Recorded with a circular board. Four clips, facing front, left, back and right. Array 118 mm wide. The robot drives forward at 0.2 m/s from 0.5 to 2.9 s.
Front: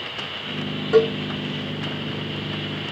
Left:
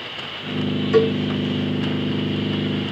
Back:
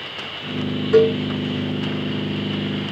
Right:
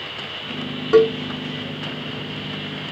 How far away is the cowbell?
About 4.5 m.